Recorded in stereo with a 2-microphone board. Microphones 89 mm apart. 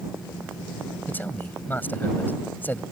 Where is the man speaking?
20° left (ahead or behind).